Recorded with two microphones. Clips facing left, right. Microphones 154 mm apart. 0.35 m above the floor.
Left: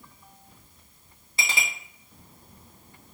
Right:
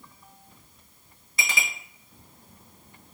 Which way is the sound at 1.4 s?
30° left (ahead or behind).